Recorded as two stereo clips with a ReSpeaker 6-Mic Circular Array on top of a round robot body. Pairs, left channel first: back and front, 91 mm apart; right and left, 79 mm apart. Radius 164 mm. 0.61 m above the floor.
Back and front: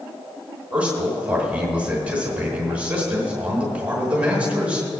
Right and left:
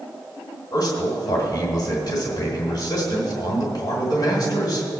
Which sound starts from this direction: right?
A man speaking, at 0.7 s.